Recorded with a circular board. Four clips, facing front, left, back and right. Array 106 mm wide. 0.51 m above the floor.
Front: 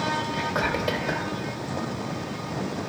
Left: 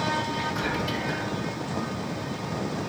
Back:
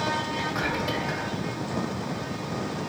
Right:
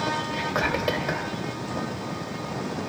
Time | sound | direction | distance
0.3 | whispering | 70° right | 1.7 m